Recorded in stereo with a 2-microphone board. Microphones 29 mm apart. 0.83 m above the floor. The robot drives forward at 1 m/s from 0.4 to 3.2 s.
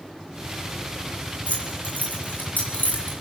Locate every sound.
1.5 s keys jangling: 65° left (ahead or behind), 5.5 m; by 3.1 s 80° left, 5 m